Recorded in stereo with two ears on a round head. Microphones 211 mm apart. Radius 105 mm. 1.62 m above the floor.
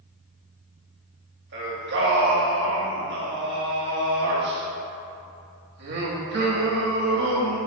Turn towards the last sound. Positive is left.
turn(degrees=-45)  # may be behind; listen again after turning